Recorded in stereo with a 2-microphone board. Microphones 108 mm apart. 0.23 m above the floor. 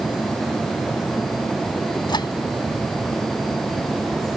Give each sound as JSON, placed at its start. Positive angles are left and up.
{"t": 2.1, "sound": "a microwave", "side_deg": 45}